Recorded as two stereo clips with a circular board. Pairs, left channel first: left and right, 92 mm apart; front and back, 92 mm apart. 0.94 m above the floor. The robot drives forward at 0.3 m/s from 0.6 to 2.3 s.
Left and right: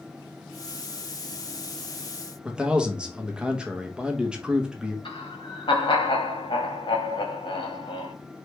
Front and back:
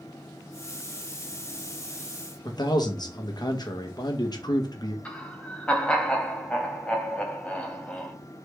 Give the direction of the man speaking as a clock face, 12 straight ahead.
12 o'clock.